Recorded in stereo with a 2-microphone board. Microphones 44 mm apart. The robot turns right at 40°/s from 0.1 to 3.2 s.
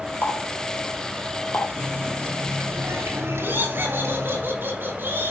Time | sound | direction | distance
0.2 | a running tap | 50° left (ahead or behind) | 4 m
1.8 | a running tap | 140° right | 5.5 m
3.4 | laughter | 55° right (ahead or behind) | 6 m